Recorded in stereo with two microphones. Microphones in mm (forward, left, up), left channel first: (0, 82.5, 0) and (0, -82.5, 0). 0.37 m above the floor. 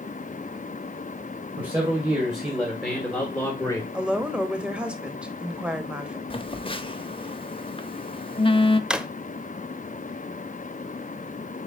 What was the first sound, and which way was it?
A man speaking, 25° right (ahead or behind).